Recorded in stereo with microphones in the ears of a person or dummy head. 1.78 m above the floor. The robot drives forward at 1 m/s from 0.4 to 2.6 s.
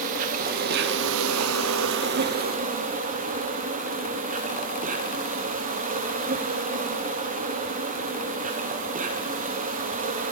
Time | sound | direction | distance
0.0 | an insect | 45° right (ahead or behind) | 1.5 m